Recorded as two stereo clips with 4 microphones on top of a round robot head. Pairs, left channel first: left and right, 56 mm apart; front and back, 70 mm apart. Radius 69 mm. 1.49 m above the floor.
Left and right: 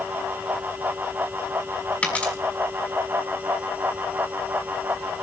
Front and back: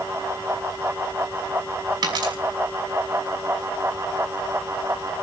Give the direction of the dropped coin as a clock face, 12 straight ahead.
7 o'clock.